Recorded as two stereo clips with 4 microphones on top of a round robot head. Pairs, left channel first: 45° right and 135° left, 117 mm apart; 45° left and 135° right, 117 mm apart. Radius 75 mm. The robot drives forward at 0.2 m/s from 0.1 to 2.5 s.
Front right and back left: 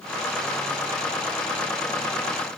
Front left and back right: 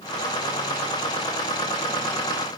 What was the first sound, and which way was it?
Only background noise.